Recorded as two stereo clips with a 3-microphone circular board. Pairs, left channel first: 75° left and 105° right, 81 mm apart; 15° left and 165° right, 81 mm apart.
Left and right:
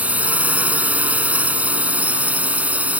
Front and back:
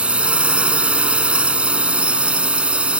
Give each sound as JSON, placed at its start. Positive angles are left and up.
{"t": 0.0, "sound": "a drone", "azimuth_deg": -120}